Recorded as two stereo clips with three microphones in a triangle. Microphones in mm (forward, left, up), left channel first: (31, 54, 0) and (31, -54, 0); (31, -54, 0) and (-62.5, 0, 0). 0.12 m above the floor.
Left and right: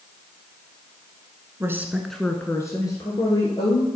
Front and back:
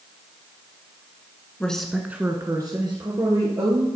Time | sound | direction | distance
1.6 | a woman speaking | 100° right | 1.2 m